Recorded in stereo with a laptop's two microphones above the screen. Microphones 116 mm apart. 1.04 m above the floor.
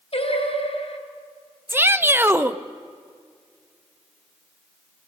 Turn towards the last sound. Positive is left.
turn(degrees=-20)  # may be behind; listen again after turning